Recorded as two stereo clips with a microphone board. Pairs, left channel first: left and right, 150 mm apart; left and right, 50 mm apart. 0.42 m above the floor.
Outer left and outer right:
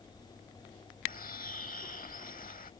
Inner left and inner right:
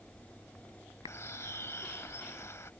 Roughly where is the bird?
Left.